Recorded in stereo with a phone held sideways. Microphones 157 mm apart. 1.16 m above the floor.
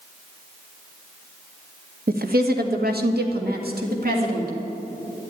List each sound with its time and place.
2.1 s a woman speaking: 70° right (ahead or behind), 1.2 m